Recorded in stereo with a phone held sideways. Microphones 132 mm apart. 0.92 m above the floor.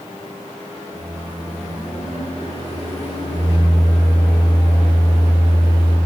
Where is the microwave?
50° left (ahead or behind), 4.5 m.